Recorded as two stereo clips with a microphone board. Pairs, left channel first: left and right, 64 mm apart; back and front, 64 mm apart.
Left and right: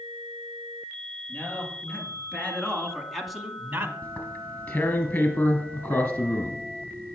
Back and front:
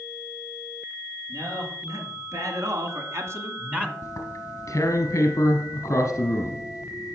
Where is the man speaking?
30° left, 4 m; by 3.9 s 65° right, 1.2 m.